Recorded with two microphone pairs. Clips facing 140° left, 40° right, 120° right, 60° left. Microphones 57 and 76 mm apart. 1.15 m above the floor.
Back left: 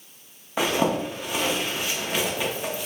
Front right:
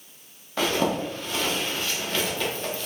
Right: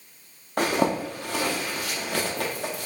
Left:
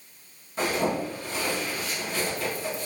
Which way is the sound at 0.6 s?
145° right.